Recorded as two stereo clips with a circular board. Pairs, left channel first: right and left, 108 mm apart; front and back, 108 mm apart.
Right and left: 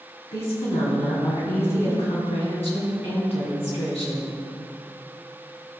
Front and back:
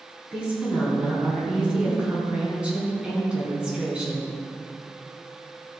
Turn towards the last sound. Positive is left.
turn(degrees=-100)